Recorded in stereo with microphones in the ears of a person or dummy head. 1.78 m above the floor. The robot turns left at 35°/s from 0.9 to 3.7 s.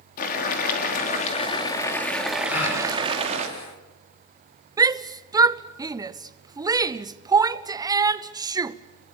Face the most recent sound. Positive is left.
turn(degrees=-15)  # may be behind; listen again after turning